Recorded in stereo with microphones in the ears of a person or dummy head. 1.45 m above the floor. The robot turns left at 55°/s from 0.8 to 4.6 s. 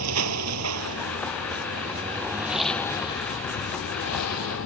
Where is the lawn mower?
85° right; by 4.7 s 75° left (ahead or behind).